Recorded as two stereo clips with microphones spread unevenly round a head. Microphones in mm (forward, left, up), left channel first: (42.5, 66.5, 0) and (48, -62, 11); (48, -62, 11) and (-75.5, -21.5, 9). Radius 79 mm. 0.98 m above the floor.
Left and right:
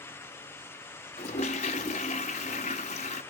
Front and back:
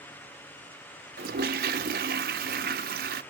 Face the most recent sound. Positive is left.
turn(degrees=145)